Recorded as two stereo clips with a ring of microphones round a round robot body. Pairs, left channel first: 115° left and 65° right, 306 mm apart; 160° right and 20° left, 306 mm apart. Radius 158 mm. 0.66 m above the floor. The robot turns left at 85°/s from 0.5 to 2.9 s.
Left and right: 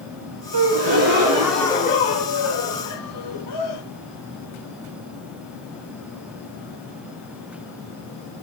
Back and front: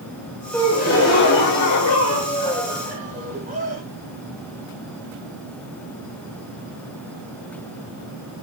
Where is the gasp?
70° right, 2.5 m; by 3.8 s 90° left, 2.5 m.